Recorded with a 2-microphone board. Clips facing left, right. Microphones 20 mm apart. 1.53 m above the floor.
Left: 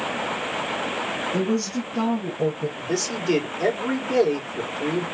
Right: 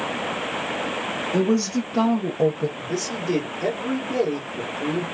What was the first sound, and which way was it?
A woman speaking, 35° right (ahead or behind).